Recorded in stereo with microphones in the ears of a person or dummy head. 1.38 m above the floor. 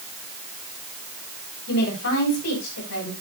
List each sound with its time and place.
1.7 s a woman speaking: 75° left (ahead or behind), 8 m